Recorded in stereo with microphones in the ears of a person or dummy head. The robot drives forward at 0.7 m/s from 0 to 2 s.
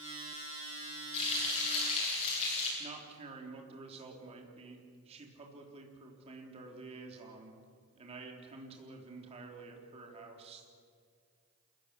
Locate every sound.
1.1 s frying: 30° left (ahead or behind), 10 m
2.8 s a man speaking: 35° right (ahead or behind), 3.5 m